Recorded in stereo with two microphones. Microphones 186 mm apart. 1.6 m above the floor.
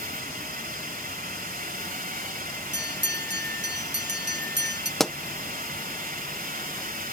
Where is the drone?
50° right (ahead or behind).